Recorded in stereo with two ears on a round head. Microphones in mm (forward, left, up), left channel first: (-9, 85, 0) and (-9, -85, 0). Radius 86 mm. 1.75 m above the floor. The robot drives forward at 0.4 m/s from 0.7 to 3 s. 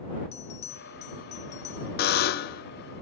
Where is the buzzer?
50° left (ahead or behind), 0.5 m.